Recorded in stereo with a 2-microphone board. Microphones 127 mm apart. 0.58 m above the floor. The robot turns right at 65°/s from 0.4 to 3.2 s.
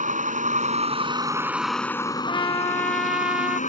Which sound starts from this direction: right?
A vehicle, at 0.0 s.